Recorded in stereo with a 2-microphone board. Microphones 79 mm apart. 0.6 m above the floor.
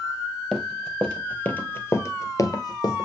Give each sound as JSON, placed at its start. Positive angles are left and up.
{"t": 0.5, "sound": "running footsteps", "side_deg": 5, "distance_m": 1.3}